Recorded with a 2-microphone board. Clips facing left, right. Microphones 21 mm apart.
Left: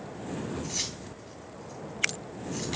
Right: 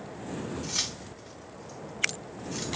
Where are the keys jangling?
50° right (ahead or behind), 4.5 m.